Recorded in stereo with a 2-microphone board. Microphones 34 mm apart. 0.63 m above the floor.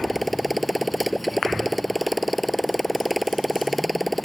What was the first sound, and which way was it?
A motorcycle, centre (ahead or behind).